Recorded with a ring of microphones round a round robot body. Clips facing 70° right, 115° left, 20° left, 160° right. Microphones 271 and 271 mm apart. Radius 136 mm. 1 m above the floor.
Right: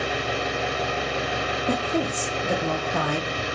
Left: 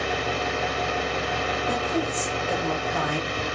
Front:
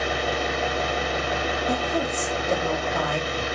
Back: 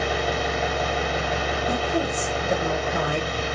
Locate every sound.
0.0 s an engine running: 140° right, 3 m
1.7 s a woman speaking: 85° right, 0.7 m